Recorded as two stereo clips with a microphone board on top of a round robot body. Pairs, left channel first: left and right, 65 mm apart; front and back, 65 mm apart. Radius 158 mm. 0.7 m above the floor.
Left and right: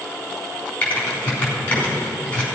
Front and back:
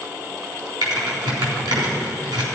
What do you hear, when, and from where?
0.8 s typing on a keyboard: 160° left, 3.5 m